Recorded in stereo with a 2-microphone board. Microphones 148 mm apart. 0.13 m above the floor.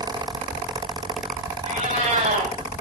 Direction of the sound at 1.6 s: 60° right (ahead or behind).